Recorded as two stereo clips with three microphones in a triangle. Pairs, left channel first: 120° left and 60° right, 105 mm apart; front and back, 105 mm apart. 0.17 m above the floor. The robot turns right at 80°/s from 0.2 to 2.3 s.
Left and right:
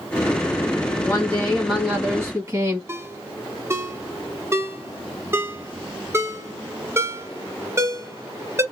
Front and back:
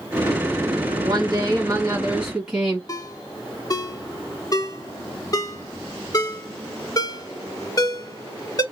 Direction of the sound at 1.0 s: 160° left.